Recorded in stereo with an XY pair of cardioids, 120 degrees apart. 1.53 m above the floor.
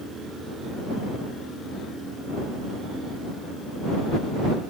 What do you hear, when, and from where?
Only background noise.